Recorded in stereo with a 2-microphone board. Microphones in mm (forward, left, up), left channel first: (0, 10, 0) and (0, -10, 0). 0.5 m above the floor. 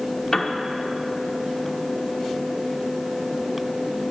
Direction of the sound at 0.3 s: 20° left (ahead or behind).